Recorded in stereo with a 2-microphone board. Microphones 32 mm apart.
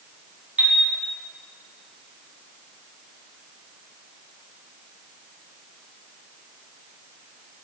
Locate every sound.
0.6 s a chime: 60° right (ahead or behind), 1.7 m